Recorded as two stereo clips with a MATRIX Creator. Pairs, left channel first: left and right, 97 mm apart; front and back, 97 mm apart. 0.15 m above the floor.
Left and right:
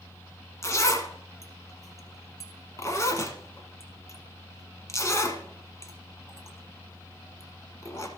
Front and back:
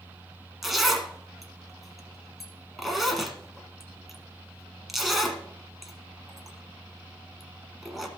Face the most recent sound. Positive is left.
turn(degrees=90)